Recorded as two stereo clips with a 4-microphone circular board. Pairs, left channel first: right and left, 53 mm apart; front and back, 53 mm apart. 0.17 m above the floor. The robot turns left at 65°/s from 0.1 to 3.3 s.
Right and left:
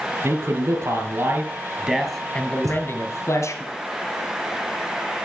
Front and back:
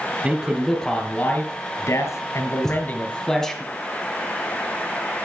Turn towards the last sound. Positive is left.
turn(degrees=40)